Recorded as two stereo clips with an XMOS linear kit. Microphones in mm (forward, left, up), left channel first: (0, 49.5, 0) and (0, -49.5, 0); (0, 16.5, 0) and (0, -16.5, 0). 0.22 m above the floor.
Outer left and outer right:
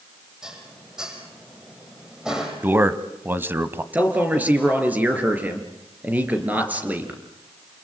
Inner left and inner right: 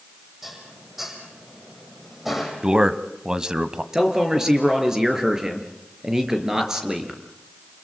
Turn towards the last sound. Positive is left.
turn(degrees=-20)  # may be behind; listen again after turning